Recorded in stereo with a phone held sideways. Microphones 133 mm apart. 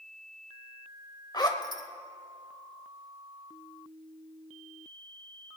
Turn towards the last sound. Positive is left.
turn(degrees=30)  # may be behind; listen again after turning